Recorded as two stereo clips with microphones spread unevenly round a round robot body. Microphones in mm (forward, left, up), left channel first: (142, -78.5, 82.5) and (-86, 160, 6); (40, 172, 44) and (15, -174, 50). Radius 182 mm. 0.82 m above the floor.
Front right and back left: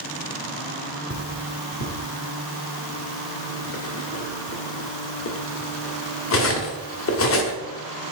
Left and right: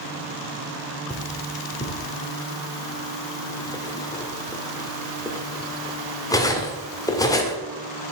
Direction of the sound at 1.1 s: 5° left.